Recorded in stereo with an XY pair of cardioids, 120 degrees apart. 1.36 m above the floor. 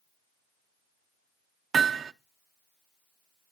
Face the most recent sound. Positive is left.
turn(degrees=-40)